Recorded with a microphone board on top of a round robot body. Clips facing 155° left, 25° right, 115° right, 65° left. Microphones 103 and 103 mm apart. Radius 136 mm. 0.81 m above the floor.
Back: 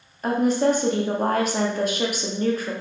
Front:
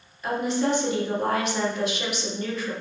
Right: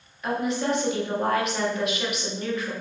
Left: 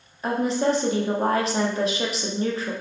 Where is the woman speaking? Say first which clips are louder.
Back 5 dB, left 3 dB; 120° left, 1.0 m.